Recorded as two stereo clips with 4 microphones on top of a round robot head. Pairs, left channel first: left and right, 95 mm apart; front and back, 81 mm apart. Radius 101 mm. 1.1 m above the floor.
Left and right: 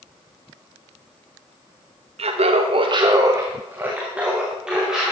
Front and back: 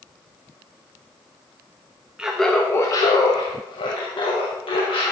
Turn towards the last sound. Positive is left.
turn(degrees=-5)